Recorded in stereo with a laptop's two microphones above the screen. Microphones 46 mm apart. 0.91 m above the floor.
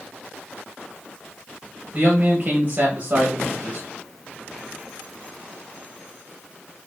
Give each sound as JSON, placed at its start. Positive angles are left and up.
{"t": 1.9, "sound": "a man speaking", "side_deg": -35, "distance_m": 1.2}